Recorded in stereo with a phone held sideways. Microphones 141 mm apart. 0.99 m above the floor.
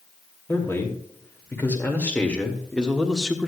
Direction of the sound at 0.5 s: 15° left (ahead or behind).